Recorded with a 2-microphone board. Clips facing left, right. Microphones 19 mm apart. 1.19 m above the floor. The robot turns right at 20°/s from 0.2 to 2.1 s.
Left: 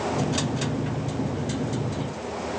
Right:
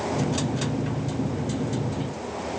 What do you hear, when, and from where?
Only background noise.